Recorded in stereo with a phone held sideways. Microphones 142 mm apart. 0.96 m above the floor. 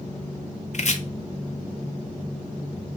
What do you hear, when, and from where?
0.7 s chopping: 55° left (ahead or behind), 0.7 m